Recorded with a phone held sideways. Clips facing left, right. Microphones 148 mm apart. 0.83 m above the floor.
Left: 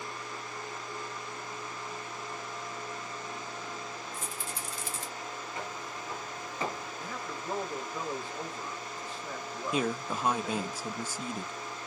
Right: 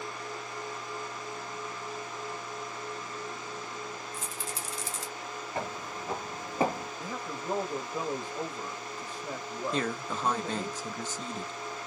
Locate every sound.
4.1 s a rattle: 60° left (ahead or behind), 1.8 m
5.5 s footsteps: 60° right (ahead or behind), 1.9 m; by 6.9 s 45° right (ahead or behind), 1.3 m
7.0 s a man speaking: 20° right (ahead or behind), 1.1 m
9.7 s a man speaking: 10° left (ahead or behind), 0.7 m